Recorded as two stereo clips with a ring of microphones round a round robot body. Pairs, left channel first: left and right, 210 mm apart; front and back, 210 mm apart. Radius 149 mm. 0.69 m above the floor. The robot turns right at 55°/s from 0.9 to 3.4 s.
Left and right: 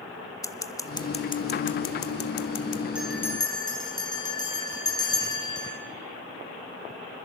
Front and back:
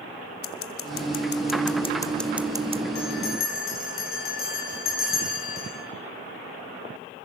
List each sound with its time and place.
0.4 s scissors: 15° left, 1.4 m; by 2.8 s 120° left, 1.4 m
3.0 s a bell: 5° right, 9.5 m; by 5.8 s 20° left, 9.5 m